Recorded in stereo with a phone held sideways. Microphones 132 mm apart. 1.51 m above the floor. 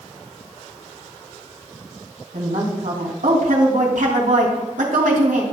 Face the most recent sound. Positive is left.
turn(degrees=-85)